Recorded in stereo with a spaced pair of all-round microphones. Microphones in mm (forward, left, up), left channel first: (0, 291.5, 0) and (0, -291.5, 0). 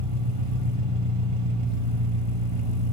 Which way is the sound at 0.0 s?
55° right (ahead or behind).